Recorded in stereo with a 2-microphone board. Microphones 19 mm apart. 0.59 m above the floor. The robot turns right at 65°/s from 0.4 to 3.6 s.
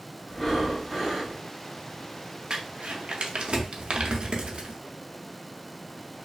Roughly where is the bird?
I don't hear a bird.